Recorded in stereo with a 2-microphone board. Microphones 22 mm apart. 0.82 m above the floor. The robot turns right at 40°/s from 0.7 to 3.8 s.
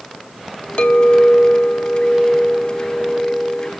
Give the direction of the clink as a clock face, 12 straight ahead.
9 o'clock.